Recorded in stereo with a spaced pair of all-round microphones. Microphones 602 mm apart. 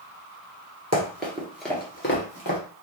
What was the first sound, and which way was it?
Running footsteps, 25° right (ahead or behind).